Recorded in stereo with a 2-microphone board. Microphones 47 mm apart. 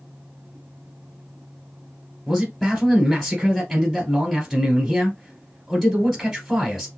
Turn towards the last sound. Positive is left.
turn(degrees=0)  # may be behind; listen again after turning